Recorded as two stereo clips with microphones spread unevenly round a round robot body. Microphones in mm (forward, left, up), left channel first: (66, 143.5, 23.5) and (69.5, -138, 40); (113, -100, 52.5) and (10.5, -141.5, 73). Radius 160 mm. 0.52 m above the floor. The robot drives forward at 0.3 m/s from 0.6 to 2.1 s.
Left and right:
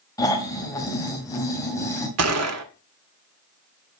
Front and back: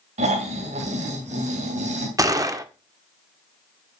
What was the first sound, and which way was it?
Snoring, 170° left.